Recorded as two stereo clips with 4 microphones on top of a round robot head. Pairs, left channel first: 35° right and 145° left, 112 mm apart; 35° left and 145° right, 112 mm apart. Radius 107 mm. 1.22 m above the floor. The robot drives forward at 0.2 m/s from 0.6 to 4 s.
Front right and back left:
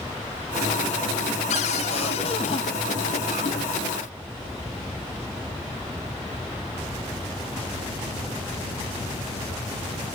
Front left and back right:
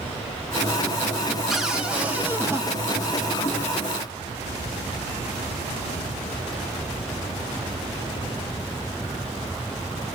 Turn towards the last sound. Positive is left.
turn(degrees=-105)